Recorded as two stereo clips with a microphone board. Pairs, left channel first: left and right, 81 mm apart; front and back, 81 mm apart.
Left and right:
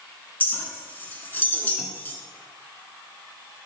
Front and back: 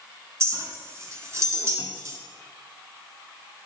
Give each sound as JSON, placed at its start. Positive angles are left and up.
{"t": 0.4, "sound": "a clink", "azimuth_deg": 145, "distance_m": 1.2}